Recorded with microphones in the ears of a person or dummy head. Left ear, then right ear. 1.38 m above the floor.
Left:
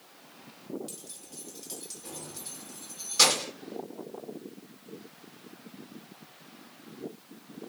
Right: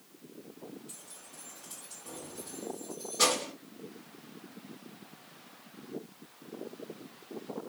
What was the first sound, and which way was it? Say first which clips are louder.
Keys jangling: left 4 dB; 55° left (ahead or behind).